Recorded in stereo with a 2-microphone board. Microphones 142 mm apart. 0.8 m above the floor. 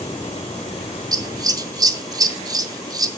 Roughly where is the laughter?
No laughter in this recording.